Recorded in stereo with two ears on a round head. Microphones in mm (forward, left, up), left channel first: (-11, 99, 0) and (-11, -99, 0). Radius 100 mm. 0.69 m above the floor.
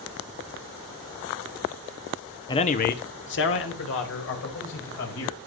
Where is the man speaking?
20° left (ahead or behind), 0.8 m; by 5.4 s 70° left (ahead or behind), 4.5 m.